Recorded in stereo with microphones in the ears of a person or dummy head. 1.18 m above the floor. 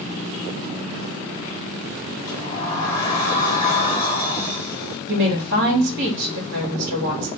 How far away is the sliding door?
About 1.7 m.